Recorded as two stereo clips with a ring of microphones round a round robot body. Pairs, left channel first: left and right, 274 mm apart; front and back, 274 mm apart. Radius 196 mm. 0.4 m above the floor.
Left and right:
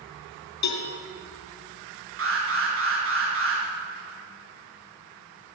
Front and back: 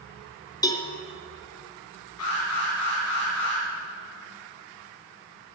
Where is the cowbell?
75° left, 2.5 m.